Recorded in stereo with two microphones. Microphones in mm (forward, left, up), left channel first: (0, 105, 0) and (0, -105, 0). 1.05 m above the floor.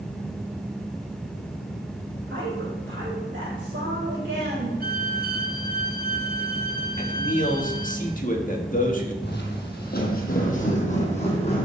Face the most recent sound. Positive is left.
turn(degrees=25)  # may be behind; listen again after turning